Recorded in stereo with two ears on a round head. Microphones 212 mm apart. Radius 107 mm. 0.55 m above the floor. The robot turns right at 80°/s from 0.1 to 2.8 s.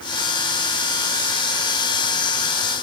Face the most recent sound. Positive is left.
No sound to turn to.